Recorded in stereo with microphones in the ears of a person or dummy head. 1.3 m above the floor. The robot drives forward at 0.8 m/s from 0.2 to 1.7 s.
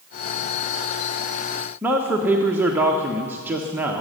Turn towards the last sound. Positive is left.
turn(degrees=-10)  # may be behind; listen again after turning